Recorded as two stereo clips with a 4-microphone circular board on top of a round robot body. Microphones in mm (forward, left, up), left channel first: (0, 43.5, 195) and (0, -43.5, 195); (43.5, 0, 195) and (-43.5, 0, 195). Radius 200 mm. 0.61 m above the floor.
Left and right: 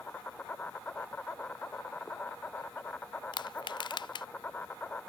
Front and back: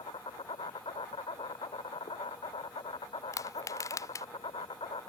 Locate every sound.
0.0 s an insect: 20° left
3.3 s crushing: 55° left